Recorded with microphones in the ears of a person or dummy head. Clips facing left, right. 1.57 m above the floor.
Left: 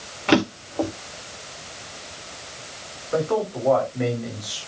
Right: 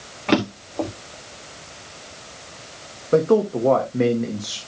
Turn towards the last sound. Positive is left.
turn(degrees=-50)  # may be behind; listen again after turning